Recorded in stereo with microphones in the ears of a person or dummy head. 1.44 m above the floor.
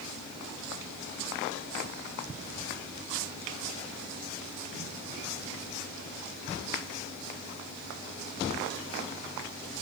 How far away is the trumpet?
I don't hear a trumpet.